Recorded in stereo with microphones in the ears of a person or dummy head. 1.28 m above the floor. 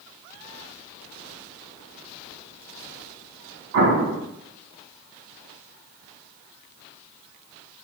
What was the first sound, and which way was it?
An explosion, 65° right (ahead or behind).